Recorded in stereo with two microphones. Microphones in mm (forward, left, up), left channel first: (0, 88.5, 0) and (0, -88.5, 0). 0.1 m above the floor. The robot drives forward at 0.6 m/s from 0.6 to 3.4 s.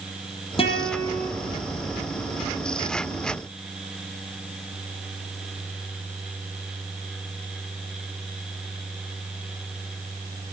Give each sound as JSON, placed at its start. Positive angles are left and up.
{"t": 0.6, "sound": "a guitar", "side_deg": 30, "distance_m": 3.0}